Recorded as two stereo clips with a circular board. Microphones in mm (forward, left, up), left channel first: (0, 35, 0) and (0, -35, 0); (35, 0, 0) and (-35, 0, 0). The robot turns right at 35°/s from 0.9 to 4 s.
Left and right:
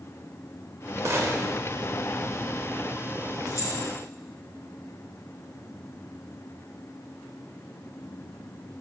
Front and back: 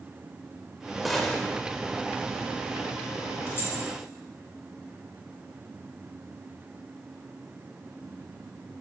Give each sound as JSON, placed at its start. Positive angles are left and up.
{"t": 1.1, "sound": "a gunshot", "azimuth_deg": -90, "distance_m": 1.1}
{"t": 3.5, "sound": "keys jangling", "azimuth_deg": 50, "distance_m": 2.5}